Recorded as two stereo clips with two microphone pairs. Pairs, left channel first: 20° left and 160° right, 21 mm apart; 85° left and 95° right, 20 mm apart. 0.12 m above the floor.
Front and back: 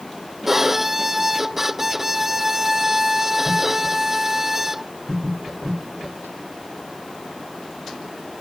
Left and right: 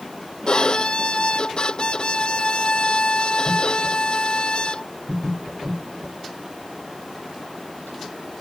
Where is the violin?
130° left.